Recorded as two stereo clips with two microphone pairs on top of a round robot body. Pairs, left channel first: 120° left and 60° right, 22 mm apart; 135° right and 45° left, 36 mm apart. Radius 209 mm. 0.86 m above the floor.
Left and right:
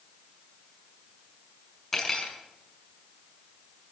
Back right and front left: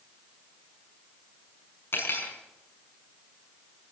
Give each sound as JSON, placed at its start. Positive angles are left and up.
{"t": 1.9, "sound": "cutlery clinking", "azimuth_deg": -160, "distance_m": 6.5}